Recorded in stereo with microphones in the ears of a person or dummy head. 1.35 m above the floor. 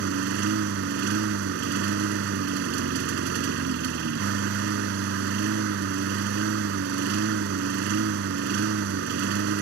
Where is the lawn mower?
70° right (ahead or behind).